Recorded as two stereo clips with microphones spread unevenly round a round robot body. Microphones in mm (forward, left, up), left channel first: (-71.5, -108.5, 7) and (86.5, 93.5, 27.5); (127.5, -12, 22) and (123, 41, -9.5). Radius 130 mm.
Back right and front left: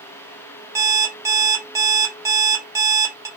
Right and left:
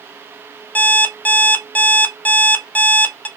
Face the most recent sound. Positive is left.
turn(degrees=-25)